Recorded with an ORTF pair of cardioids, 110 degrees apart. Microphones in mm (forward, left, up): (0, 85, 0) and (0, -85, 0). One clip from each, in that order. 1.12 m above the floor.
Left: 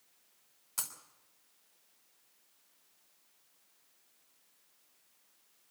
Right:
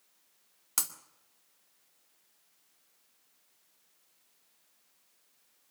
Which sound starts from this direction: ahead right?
Breaking glass, at 0.8 s.